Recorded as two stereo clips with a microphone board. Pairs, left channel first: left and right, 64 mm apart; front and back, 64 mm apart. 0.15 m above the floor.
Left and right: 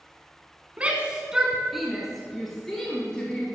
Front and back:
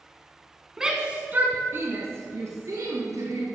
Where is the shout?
110° right, 1.1 m; by 3.5 s 165° left, 2.5 m.